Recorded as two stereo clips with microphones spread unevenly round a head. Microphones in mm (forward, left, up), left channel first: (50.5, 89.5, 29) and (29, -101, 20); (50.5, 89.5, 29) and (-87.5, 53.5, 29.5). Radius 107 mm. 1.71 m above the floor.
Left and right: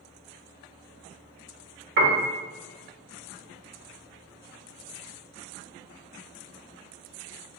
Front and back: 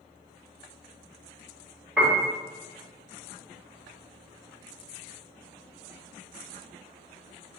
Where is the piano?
80° right, 0.8 m.